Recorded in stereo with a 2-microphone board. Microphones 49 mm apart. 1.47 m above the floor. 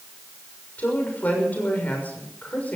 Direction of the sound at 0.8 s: 35° left (ahead or behind).